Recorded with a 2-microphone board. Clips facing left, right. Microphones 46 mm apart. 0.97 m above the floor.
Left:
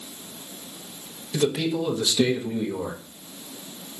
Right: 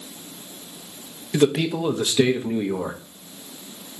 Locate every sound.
1.3 s a man speaking: 45° right (ahead or behind), 0.6 m